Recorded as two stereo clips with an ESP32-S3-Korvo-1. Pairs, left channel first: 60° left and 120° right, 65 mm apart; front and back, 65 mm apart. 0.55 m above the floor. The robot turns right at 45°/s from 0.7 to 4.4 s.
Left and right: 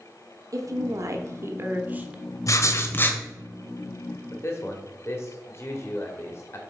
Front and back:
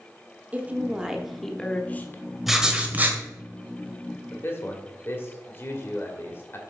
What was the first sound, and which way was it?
A woman speaking, 120° right.